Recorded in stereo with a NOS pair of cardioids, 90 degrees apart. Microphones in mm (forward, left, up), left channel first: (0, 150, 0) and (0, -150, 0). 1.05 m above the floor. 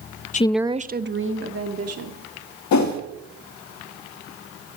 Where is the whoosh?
70° left, 1.9 m.